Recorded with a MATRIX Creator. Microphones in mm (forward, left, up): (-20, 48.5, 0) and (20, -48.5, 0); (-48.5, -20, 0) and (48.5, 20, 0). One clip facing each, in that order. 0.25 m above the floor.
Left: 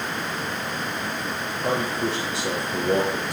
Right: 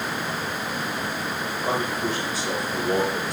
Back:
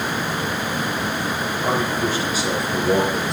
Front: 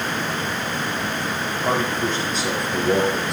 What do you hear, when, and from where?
1.6 s a man speaking: 125° left, 5 m; by 3.3 s 110° left, 3.5 m